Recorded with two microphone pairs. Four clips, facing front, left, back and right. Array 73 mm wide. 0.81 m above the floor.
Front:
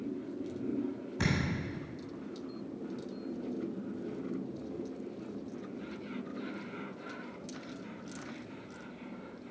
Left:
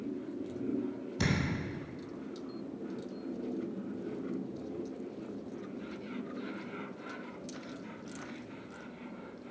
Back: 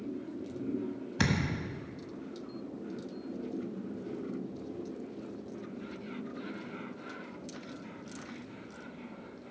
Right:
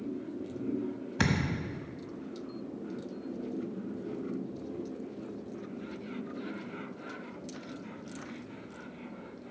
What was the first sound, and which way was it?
A thud, 120° right.